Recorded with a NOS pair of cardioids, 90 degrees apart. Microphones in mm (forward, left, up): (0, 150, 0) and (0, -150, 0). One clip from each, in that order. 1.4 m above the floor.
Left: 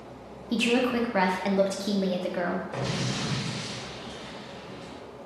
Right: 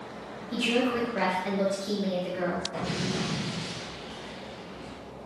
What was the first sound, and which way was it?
A woman speaking, 45° left.